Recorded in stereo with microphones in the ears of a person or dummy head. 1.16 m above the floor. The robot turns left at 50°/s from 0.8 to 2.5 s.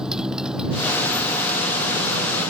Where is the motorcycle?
5° right; by 2.5 s 90° right.